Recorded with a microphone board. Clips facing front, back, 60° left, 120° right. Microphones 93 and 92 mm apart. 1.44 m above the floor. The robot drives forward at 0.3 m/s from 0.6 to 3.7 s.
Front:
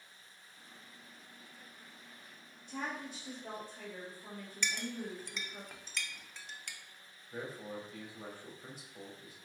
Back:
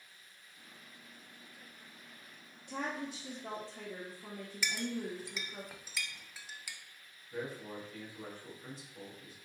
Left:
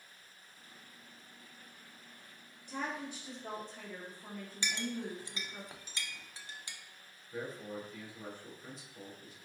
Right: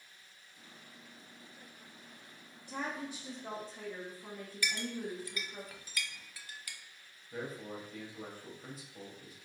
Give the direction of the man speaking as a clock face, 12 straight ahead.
3 o'clock.